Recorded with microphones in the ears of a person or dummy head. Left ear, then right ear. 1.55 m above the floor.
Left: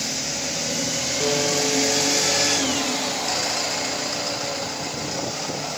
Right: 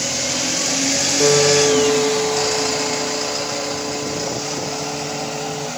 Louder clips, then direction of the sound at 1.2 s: Right 9 dB; 65° right (ahead or behind).